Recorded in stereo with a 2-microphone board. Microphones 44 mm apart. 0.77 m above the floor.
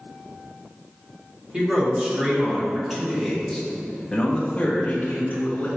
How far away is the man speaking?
About 1.9 m.